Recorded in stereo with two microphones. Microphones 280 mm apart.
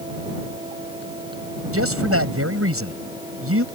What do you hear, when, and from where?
1.7 s a man speaking: 55° right (ahead or behind)